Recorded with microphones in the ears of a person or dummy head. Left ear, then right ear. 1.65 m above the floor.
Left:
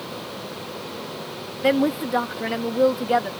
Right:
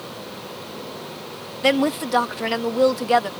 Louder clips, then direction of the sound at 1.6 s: Right 1 dB; 30° right (ahead or behind).